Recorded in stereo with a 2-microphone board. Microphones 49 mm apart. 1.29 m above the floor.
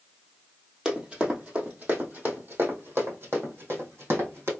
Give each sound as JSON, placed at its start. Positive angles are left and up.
{"t": 0.8, "sound": "running footsteps", "side_deg": -20, "distance_m": 1.7}